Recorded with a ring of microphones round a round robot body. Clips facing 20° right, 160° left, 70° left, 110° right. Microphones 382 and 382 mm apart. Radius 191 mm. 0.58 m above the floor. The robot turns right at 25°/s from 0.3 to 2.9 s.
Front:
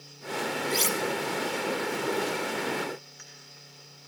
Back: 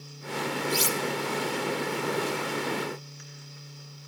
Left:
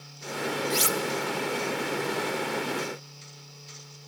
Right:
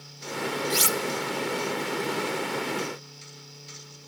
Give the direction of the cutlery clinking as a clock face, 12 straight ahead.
5 o'clock.